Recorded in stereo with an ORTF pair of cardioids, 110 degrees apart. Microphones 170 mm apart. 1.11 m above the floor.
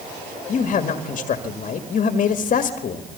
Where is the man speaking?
45° left, 1.9 m.